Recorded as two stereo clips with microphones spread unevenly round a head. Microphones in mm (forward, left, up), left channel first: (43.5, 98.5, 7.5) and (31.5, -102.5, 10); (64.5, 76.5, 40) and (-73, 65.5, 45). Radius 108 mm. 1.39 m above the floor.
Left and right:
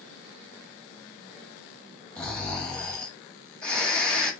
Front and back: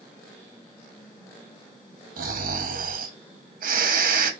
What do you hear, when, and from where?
2.2 s snoring: 170° left, 2.0 m